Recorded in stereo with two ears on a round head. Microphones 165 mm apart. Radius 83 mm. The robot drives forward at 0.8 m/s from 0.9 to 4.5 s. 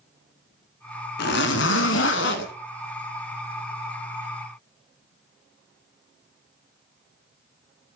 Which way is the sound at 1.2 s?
55° left (ahead or behind).